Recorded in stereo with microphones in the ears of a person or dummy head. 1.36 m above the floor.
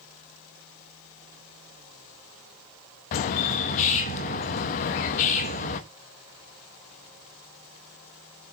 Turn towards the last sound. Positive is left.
turn(degrees=45)  # may be behind; listen again after turning